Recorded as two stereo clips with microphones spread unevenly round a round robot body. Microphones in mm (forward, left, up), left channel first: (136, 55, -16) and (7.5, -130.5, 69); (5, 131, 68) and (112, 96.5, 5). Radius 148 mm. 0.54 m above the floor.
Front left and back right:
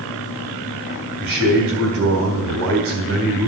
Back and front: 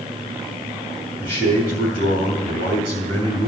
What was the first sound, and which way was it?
A man speaking, 160° right.